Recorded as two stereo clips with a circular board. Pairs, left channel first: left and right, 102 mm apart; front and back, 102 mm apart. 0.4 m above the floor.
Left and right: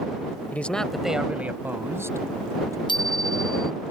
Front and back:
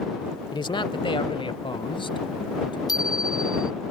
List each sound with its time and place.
0.5 s a man speaking: 20° left; by 2.8 s 35° right
2.9 s a bicycle bell: 50° left